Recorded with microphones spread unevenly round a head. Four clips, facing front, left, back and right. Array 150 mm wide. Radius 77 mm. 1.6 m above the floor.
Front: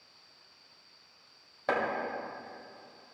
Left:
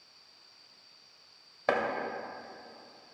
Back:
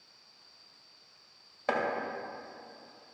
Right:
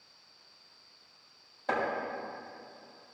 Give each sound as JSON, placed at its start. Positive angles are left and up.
{"t": 1.7, "sound": "chopping", "azimuth_deg": 85, "distance_m": 2.0}